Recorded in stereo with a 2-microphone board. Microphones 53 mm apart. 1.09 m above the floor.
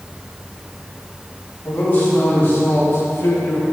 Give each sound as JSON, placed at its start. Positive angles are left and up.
{"t": 1.6, "sound": "a man speaking", "side_deg": 30, "distance_m": 3.0}